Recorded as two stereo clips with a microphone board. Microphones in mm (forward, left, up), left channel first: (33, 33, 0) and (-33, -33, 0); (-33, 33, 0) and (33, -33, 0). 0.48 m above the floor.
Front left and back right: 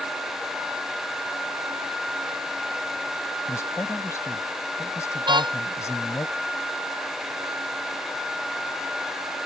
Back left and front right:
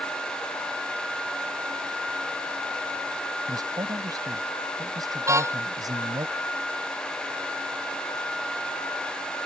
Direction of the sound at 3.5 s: 10° right.